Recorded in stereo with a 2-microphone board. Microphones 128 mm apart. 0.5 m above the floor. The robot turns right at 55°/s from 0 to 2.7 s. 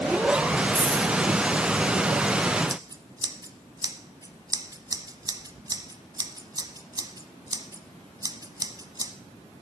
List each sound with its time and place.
0.8 s a dropped coin: 20° left (ahead or behind), 6.5 m; by 1.1 s 40° left (ahead or behind), 6.5 m
2.7 s scissors: 30° right (ahead or behind), 0.8 m